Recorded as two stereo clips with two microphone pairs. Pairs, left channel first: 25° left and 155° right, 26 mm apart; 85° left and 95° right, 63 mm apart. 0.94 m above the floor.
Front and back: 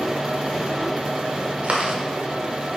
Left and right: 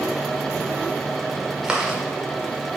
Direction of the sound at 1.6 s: 175° right.